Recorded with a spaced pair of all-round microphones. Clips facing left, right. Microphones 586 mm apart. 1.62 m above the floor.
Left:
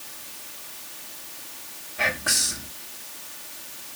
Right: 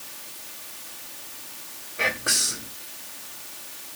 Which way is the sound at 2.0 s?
20° left (ahead or behind).